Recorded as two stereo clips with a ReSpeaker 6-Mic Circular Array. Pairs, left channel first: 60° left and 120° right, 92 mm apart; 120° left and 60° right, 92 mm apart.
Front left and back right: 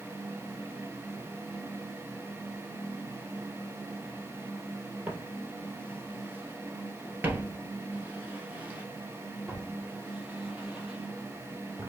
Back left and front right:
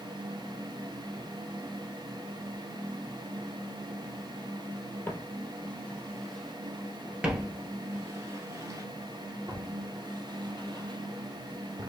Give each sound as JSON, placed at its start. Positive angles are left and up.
{"t": 5.1, "sound": "footsteps", "azimuth_deg": 180, "distance_m": 1.7}